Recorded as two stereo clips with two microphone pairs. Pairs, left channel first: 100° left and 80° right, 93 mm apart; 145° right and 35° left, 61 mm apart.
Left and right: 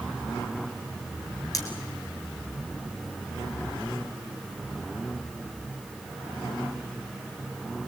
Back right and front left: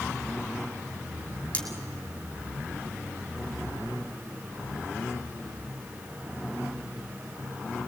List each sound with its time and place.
1.5 s cutlery clinking: 150° left, 3 m